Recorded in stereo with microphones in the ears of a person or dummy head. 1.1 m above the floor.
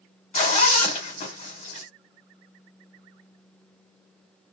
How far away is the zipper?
About 1.2 m.